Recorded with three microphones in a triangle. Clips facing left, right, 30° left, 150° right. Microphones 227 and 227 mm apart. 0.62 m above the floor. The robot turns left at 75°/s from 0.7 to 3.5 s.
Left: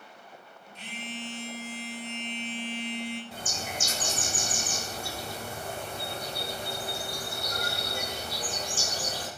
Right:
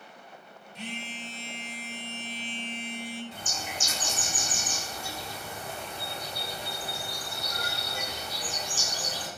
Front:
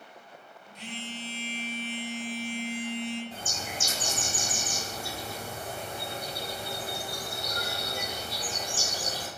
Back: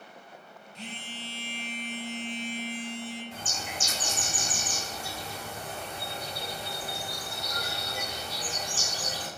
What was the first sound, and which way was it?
A phone buzzing, 95° right.